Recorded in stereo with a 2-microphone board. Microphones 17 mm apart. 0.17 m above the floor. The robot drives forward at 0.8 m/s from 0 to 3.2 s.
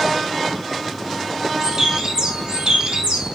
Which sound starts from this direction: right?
A bird, at 1.6 s.